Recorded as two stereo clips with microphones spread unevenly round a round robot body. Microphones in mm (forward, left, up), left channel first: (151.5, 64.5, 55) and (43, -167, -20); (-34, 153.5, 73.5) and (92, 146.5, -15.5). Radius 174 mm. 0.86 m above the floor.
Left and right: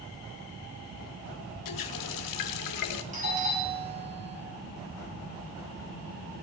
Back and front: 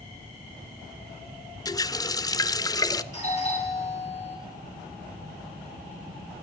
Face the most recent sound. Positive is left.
turn(degrees=-60)